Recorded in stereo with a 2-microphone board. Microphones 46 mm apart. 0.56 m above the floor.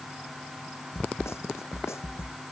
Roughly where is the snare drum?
Left.